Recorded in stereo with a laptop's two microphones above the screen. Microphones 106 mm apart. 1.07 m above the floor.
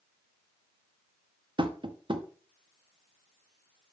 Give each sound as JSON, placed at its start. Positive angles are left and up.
{"t": 1.6, "sound": "tapping", "side_deg": -50, "distance_m": 0.7}